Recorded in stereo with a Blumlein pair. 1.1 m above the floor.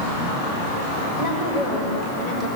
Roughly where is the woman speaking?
Ahead left.